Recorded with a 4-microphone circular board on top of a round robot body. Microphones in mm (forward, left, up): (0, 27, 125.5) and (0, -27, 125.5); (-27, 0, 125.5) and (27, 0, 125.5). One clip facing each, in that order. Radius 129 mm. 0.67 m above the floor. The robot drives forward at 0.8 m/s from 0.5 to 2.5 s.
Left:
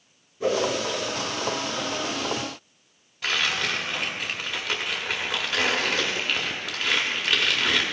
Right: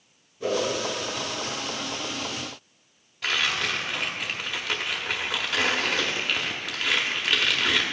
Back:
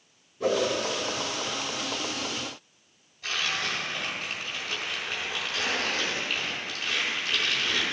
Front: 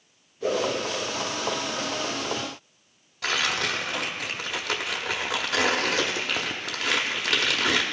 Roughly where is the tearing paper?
Ahead.